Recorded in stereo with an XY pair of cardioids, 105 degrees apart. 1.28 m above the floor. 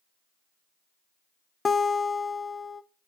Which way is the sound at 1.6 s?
30° left.